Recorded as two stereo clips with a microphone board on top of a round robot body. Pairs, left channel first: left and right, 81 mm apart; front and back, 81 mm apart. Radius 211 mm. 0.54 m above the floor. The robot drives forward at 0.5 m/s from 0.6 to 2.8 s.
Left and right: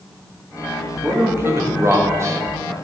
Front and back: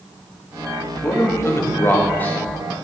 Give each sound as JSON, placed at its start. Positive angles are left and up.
{"t": 1.0, "sound": "a man speaking", "azimuth_deg": -35, "distance_m": 1.8}